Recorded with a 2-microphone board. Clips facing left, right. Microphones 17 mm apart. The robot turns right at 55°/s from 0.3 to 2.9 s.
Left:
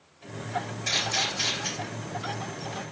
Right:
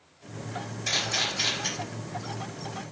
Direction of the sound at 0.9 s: 15° left (ahead or behind).